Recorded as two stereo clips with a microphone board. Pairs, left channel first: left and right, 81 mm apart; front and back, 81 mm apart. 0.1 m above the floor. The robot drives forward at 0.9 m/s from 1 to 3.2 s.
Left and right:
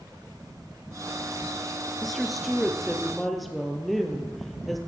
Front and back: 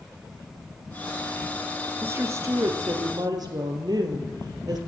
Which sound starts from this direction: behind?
A woman speaking, at 2.0 s.